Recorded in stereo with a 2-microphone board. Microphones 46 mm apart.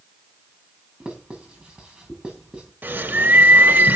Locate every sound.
1.0 s writing: 25° right (ahead or behind), 7.5 m
2.8 s a bird: 45° right (ahead or behind), 1.7 m